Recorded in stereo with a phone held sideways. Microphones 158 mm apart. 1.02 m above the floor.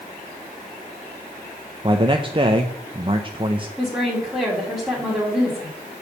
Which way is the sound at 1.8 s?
35° right (ahead or behind).